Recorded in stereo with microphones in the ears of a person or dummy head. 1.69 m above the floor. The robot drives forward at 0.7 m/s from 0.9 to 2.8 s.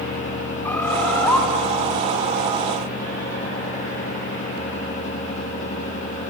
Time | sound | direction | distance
0.6 | a bird | 10° left (ahead or behind) | 0.7 m